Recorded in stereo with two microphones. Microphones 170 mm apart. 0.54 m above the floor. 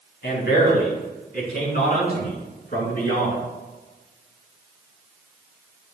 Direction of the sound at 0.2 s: 75° left (ahead or behind).